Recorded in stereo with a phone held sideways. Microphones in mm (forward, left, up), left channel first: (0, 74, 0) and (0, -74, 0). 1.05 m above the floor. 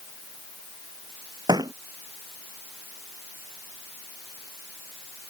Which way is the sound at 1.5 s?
30° right (ahead or behind).